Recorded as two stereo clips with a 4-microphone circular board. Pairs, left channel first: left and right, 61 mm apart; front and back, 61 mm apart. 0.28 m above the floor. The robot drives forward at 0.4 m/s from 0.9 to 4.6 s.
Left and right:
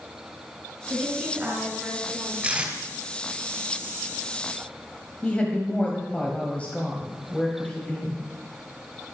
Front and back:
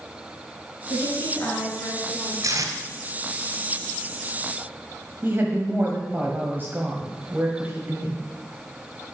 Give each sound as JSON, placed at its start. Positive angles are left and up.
{"t": 0.9, "sound": "a woman speaking", "azimuth_deg": -30, "distance_m": 3.5}
{"t": 2.4, "sound": "tape being pulled", "azimuth_deg": -160, "distance_m": 2.5}
{"t": 5.2, "sound": "a woman speaking", "azimuth_deg": 145, "distance_m": 1.4}